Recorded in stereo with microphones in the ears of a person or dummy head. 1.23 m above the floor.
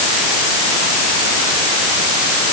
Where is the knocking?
I don't hear knocking.